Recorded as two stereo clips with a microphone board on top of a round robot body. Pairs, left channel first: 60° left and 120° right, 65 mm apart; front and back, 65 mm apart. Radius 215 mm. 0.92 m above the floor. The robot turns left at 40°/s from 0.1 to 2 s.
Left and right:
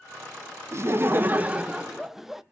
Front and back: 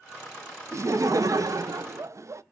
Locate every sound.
0.7 s laughter: 150° right, 0.6 m; by 2.4 s 155° left, 0.6 m